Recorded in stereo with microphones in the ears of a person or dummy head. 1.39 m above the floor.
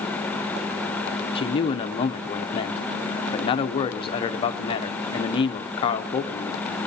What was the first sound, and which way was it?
A man speaking, 30° left (ahead or behind).